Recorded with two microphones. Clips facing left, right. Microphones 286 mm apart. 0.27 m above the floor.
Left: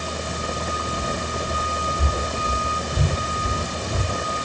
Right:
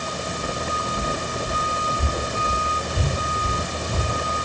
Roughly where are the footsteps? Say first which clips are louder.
Even; left.